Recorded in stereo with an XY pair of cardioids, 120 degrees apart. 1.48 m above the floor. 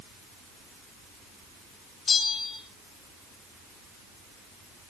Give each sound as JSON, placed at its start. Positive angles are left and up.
{"t": 2.1, "sound": "a bell", "azimuth_deg": 40, "distance_m": 2.5}